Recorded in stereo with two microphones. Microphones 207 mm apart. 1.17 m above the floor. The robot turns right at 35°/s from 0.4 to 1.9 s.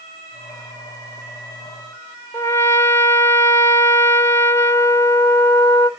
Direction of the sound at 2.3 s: 15° left (ahead or behind).